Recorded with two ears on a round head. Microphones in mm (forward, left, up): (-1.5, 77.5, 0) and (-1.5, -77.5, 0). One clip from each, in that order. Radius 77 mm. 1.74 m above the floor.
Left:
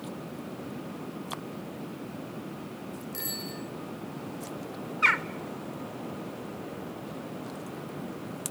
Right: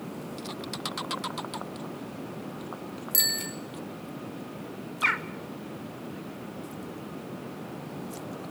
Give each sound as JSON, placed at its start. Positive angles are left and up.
{"t": 3.1, "sound": "a bicycle bell", "side_deg": -65, "distance_m": 4.0}
{"t": 5.0, "sound": "a bird", "side_deg": 10, "distance_m": 0.7}